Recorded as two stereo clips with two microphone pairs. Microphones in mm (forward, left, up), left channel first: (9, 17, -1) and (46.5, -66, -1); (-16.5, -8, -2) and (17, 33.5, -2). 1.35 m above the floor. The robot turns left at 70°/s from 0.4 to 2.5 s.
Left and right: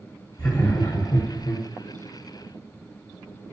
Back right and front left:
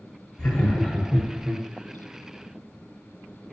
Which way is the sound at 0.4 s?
165° right.